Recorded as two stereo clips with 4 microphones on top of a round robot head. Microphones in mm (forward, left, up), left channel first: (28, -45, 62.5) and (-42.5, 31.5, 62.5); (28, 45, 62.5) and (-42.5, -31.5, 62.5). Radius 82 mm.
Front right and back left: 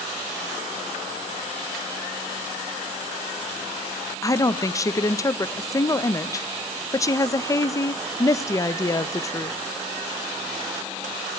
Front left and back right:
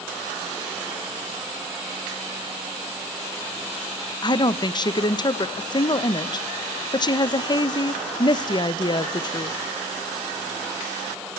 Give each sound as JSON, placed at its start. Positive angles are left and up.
{"t": 4.2, "sound": "a woman speaking", "azimuth_deg": 10, "distance_m": 0.6}